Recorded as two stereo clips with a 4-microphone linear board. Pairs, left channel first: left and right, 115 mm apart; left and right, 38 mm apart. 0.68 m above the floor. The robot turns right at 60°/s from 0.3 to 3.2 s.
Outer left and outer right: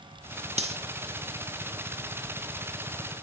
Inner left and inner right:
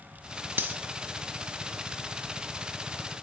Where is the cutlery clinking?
65° right (ahead or behind), 0.7 m; by 0.8 s 55° right (ahead or behind), 0.7 m.